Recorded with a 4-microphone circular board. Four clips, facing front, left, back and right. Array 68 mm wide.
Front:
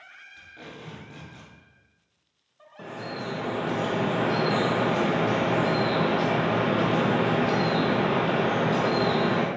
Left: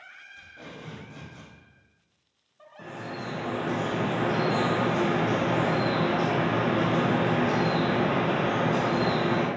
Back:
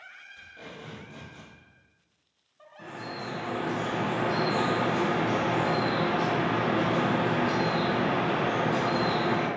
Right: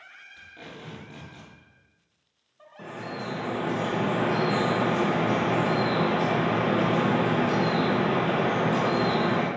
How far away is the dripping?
About 0.8 m.